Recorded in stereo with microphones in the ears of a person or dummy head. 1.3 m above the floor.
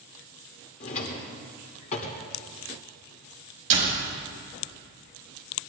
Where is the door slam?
45° right (ahead or behind), 4.5 m.